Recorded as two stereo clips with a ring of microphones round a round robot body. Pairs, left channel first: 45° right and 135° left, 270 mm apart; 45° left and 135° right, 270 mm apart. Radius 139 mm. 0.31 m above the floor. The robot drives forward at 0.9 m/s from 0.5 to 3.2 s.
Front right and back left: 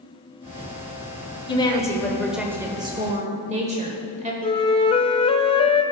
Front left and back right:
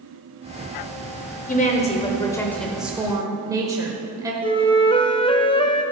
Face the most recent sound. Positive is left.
turn(degrees=0)